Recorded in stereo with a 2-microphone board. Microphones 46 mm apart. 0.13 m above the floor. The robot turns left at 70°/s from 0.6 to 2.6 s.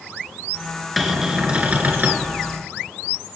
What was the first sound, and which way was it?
A cupboard door, straight ahead.